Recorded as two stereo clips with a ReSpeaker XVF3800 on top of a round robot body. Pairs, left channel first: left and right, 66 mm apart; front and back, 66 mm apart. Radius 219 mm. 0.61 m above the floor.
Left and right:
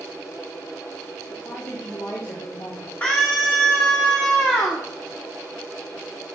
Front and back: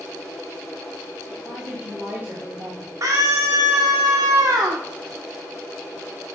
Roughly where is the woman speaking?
Left.